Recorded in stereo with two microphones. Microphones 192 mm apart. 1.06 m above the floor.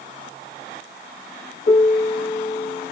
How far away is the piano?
About 1.8 m.